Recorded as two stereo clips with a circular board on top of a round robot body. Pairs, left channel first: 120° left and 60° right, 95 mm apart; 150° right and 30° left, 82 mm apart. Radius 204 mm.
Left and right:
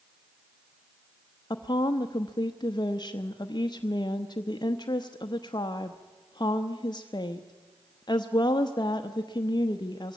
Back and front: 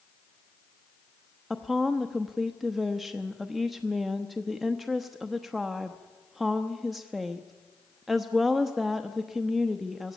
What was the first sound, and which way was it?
A woman speaking, 120° left.